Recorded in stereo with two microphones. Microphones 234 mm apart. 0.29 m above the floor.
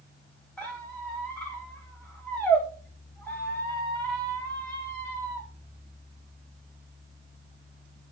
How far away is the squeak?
About 2.5 m.